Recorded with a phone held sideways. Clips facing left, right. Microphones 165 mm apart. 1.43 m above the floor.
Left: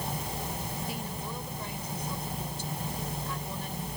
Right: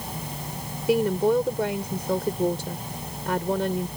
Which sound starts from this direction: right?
A woman speaking, at 0.9 s.